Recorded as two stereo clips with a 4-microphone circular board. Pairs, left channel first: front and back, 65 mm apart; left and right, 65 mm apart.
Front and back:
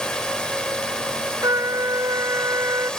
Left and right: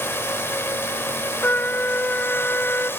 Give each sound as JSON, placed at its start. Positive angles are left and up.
{"t": 0.0, "sound": "a drone", "azimuth_deg": 70}
{"t": 1.4, "sound": "a trumpet", "azimuth_deg": 150}